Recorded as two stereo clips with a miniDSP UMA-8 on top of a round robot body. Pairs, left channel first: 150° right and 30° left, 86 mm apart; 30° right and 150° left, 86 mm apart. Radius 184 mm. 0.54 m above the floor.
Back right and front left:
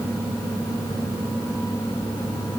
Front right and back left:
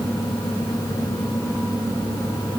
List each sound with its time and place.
Only background noise.